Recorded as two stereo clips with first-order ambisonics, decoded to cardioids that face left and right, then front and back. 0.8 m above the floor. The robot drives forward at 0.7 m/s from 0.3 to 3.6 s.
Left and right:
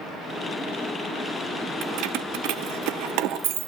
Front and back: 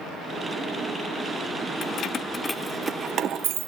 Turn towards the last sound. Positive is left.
turn(degrees=-135)